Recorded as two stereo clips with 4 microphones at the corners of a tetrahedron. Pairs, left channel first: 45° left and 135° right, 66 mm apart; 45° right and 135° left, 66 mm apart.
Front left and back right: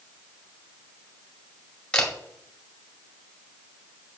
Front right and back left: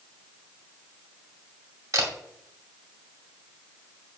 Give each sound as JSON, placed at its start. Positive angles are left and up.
{"t": 1.9, "sound": "a camera shutter", "azimuth_deg": 115, "distance_m": 2.0}